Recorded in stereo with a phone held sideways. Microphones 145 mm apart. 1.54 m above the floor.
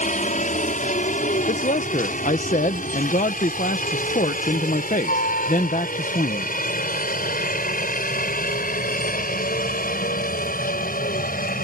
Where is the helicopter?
60° left (ahead or behind); by 11.7 s 80° left.